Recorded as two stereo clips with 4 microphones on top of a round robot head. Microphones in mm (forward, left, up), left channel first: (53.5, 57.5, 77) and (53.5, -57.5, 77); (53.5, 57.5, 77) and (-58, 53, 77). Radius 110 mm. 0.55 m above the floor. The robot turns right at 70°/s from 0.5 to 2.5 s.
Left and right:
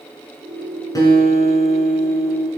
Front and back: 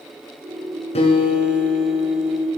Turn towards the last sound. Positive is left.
turn(degrees=140)